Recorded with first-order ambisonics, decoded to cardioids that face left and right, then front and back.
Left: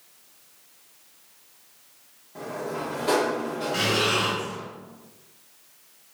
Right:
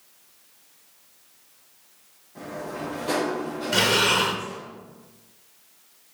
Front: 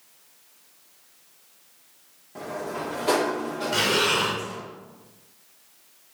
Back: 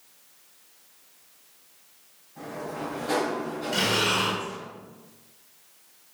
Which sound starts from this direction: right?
Breathing, at 3.7 s.